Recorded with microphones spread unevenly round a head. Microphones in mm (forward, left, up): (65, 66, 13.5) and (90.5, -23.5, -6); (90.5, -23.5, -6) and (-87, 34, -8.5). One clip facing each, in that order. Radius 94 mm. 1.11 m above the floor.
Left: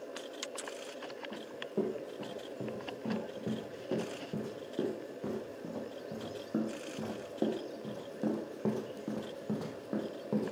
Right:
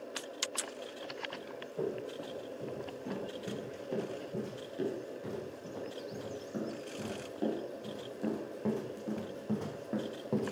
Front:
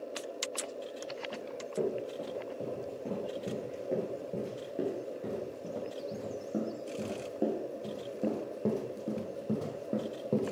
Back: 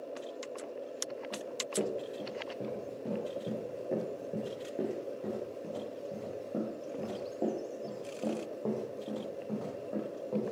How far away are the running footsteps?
About 6 m.